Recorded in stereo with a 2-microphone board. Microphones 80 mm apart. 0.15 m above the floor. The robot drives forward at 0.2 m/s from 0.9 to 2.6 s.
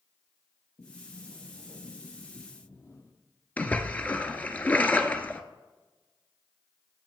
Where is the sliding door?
50° left (ahead or behind), 2.5 m.